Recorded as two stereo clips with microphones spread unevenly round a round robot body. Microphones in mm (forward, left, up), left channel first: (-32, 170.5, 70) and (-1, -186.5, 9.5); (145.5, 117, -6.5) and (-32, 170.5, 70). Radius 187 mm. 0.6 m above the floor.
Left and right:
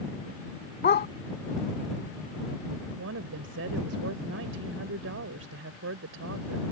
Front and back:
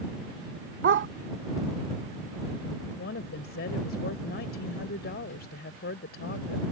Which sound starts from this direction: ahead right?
A woman speaking, at 3.0 s.